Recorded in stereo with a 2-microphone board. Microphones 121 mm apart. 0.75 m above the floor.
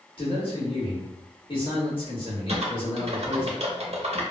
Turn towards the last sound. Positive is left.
turn(degrees=-60)  # may be behind; listen again after turning